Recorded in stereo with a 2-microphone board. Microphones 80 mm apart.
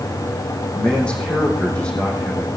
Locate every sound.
0.7 s a man speaking: 15° left (ahead or behind), 5.5 m